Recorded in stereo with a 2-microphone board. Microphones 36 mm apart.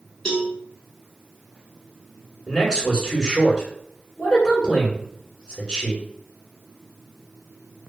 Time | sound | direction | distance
0.2 | a cowbell | 25° left (ahead or behind) | 0.9 m
2.5 | a man speaking | 20° left (ahead or behind) | 1.2 m